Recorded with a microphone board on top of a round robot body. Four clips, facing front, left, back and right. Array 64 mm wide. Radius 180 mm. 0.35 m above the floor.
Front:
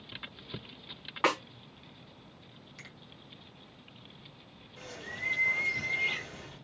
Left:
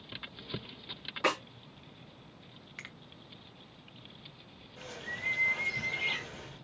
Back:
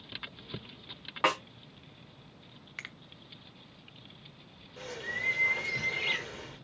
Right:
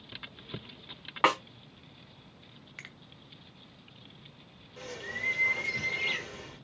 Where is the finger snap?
Straight behind, 0.9 m.